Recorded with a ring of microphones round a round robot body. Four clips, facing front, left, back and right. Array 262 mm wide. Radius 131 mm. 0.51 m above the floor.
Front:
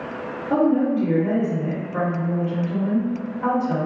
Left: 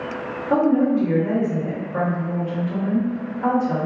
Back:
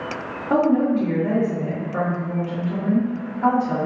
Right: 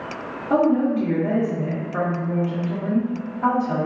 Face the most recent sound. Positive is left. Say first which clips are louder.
# left 1 dB, back 1 dB
turn(degrees=-140)